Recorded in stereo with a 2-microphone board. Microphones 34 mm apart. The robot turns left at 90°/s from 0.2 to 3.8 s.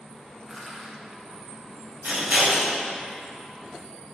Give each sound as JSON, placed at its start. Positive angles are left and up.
{"t": 0.5, "sound": "crushing", "side_deg": -5, "distance_m": 0.7}
{"t": 2.0, "sound": "scissors", "side_deg": -70, "distance_m": 0.9}